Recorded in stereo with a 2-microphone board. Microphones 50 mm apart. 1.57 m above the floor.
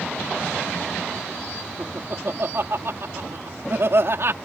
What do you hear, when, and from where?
1.8 s laughter: 60° right (ahead or behind)